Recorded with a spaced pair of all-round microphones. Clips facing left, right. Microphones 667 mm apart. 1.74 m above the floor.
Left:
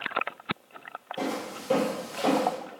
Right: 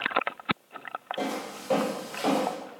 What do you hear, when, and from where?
1.2 s footsteps: 35° left (ahead or behind), 2 m; by 2.5 s 45° left (ahead or behind), 2.5 m